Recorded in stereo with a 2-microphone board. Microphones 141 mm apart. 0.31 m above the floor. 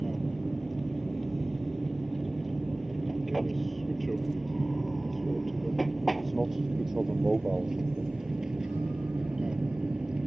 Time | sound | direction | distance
0.0 | an aircraft | centre (ahead or behind) | ?